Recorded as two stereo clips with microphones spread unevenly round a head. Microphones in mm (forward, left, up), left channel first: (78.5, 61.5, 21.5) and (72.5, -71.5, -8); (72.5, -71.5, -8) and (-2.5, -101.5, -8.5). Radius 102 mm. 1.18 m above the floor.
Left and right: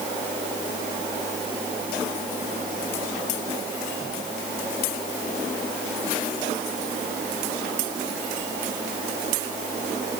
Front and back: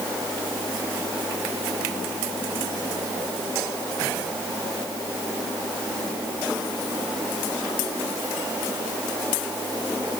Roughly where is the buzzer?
I don't hear a buzzer.